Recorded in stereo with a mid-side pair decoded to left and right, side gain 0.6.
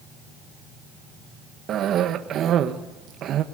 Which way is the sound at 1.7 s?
50° right.